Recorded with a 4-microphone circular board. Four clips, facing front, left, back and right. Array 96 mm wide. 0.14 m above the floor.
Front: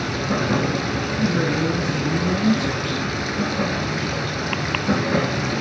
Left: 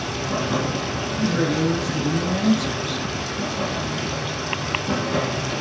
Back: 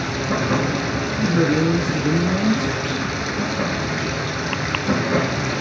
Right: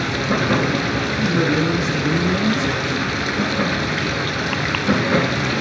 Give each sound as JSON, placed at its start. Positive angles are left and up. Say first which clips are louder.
{"t": 0.0, "sound": "running water", "louder": "right 5 dB, back 1 dB", "azimuth_deg": -95, "distance_m": 0.9}
{"t": 1.2, "sound": "a man speaking", "louder": "right 2 dB, back 4 dB", "azimuth_deg": -120, "distance_m": 1.4}